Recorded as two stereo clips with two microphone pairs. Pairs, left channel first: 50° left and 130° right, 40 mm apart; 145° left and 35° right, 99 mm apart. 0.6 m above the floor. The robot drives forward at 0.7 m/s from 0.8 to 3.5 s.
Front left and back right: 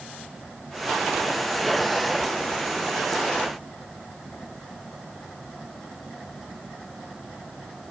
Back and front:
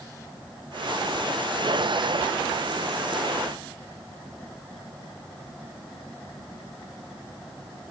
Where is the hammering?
No hammering in this recording.